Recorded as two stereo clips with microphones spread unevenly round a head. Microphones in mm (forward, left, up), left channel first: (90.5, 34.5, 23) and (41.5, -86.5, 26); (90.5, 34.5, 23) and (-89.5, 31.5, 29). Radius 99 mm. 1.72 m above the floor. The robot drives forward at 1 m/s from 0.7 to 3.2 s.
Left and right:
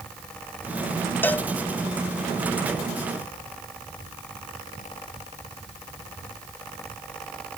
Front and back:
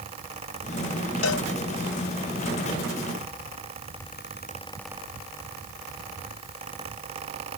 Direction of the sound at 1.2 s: 10° right.